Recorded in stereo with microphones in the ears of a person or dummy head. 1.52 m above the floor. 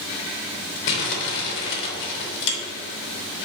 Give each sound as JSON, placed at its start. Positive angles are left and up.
{"t": 0.9, "sound": "crumpling", "side_deg": 60, "distance_m": 3.0}